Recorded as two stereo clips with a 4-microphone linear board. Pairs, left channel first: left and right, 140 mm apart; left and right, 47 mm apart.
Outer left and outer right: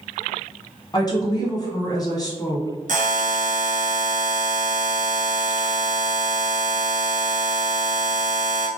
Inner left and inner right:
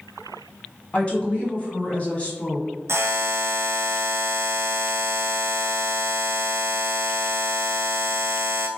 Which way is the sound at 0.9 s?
30° left (ahead or behind).